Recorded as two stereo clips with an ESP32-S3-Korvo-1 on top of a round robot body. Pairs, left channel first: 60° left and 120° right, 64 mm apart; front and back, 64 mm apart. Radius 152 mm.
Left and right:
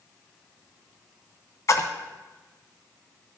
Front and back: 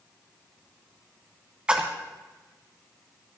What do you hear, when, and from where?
1.7 s a splash: 105° left, 1.2 m